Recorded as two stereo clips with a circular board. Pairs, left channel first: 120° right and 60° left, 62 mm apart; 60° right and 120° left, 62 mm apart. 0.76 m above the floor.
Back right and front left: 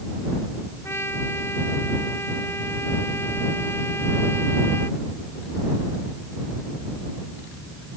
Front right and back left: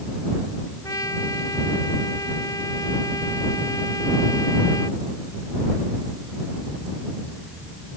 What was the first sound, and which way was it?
A trumpet, 75° right.